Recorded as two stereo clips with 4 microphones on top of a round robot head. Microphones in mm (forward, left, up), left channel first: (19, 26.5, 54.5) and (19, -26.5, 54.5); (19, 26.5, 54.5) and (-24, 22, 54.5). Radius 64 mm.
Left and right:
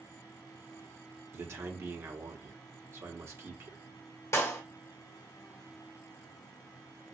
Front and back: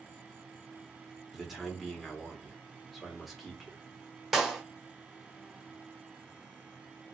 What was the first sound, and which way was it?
A man speaking, 85° right.